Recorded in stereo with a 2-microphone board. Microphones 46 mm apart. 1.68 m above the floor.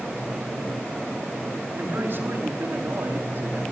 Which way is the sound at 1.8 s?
50° right (ahead or behind).